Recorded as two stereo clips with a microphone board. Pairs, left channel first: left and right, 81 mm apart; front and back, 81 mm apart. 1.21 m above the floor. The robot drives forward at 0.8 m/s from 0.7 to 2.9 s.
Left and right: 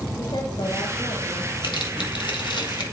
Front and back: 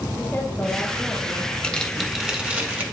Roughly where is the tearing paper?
Left.